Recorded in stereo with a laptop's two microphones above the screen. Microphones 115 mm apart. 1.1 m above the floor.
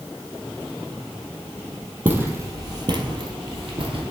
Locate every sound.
2.0 s footsteps: 20° right (ahead or behind), 1.8 m; by 4.0 s 55° right (ahead or behind), 2 m